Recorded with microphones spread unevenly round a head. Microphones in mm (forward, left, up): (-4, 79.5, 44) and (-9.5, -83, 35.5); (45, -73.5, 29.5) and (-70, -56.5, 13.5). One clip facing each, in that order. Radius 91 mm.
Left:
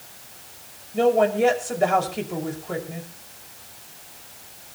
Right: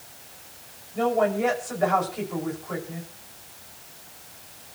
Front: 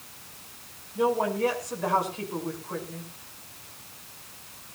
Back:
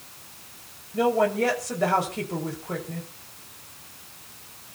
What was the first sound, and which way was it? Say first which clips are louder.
A woman speaking: left 4 dB, back 3 dB; 145° left.